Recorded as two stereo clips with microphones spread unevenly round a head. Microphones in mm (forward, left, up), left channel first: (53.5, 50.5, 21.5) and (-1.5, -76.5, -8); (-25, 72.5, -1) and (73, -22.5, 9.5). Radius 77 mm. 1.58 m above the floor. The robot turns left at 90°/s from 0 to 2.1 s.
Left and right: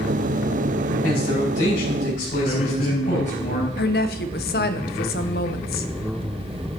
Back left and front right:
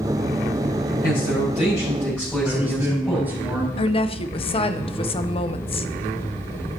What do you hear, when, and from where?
1.0 s a man speaking: 150° left, 5.5 m; by 3.4 s 55° left, 5.5 m
2.4 s a man speaking: 30° left, 5.5 m
3.8 s a woman speaking: 85° left, 0.7 m